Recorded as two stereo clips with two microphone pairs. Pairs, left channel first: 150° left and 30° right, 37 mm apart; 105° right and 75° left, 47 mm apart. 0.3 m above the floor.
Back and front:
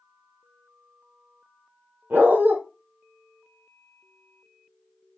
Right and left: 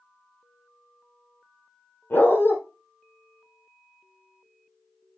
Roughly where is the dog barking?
Ahead right.